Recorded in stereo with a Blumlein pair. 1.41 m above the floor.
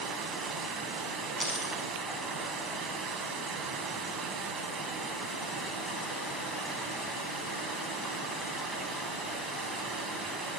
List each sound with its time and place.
0.0 s running water: 10° right, 4 m
1.4 s a dropped coin: 5° left, 7.5 m